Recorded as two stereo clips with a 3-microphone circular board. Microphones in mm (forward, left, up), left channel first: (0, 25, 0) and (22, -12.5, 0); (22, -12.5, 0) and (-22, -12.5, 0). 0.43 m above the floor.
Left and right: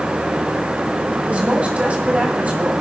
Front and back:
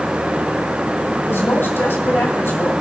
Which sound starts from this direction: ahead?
A woman speaking, at 1.3 s.